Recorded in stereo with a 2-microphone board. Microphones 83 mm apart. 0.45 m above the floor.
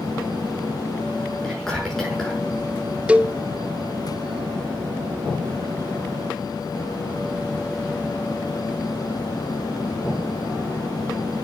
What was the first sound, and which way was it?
Whispering, 10° left (ahead or behind).